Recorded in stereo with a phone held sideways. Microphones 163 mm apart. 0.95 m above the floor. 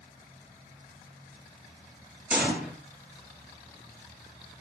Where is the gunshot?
10° right (ahead or behind), 8 m.